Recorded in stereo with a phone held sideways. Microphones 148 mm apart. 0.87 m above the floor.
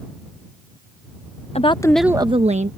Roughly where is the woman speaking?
Left.